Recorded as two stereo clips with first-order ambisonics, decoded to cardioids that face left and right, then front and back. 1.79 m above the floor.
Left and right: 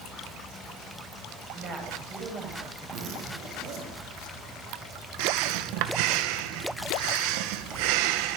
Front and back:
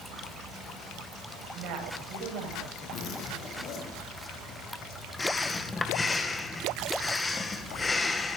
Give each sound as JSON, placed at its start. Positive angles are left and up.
{"t": 1.6, "sound": "a woman speaking", "azimuth_deg": -145, "distance_m": 9.5}
{"t": 2.9, "sound": "a zipper", "azimuth_deg": -50, "distance_m": 7.5}
{"t": 5.2, "sound": "breathing", "azimuth_deg": -80, "distance_m": 2.0}